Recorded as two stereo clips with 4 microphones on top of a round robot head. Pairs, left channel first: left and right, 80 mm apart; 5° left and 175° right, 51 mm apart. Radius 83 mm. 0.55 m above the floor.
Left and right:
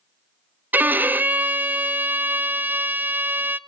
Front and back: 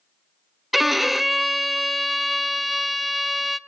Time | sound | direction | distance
0.7 | a violin | 95° right | 0.8 m